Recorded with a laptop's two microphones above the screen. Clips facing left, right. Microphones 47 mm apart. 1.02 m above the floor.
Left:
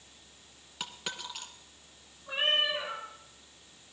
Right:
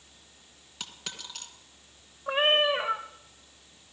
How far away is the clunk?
No clunk in this recording.